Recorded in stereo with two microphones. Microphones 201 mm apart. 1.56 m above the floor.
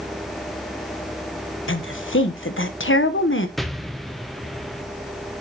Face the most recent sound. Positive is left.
turn(degrees=0)  # may be behind; listen again after turning